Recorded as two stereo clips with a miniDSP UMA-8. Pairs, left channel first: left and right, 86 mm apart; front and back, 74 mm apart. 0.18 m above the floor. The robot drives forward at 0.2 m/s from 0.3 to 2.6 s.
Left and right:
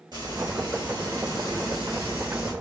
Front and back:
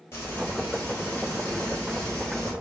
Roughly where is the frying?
Ahead right.